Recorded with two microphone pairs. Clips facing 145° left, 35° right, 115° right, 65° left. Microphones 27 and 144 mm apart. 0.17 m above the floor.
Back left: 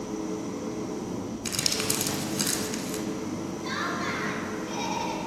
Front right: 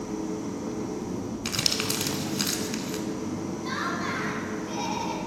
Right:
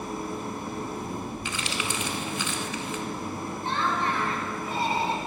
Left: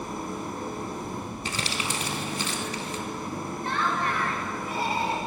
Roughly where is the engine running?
Behind.